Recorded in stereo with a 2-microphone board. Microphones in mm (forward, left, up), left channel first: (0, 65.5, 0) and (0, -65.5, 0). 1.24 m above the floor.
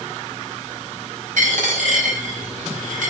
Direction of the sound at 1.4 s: 85° right.